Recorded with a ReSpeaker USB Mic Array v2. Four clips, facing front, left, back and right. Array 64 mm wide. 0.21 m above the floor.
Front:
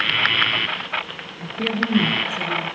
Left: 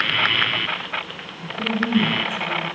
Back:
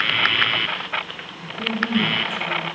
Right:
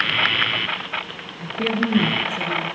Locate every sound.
1.4 s a woman speaking: 50° right, 3.5 m; by 2.6 s 65° right, 2.5 m